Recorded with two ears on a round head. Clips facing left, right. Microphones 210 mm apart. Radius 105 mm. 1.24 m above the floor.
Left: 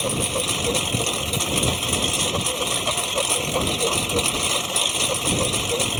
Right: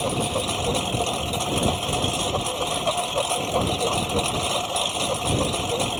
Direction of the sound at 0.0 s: 30° left (ahead or behind).